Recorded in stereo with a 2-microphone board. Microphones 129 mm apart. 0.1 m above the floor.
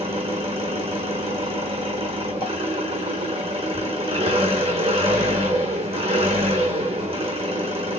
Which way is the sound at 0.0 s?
50° right (ahead or behind).